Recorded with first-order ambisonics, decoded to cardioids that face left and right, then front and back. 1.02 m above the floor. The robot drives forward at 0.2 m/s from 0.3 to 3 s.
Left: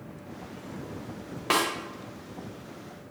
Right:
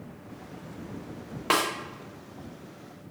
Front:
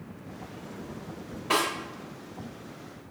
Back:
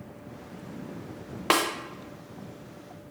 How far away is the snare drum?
About 0.5 m.